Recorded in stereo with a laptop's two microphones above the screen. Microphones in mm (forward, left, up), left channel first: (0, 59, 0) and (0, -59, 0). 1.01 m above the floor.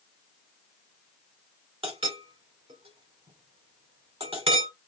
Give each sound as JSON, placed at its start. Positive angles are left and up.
{"t": 1.8, "sound": "a clink", "side_deg": -55, "distance_m": 1.8}